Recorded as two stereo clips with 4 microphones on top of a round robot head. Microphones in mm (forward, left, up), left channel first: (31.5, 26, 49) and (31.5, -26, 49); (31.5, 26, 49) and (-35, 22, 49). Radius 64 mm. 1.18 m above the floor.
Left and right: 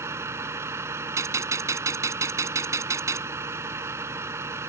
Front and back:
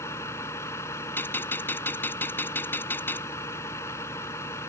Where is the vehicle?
55° right.